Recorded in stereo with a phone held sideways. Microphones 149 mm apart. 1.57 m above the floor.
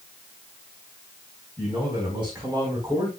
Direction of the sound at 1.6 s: 5° right (ahead or behind).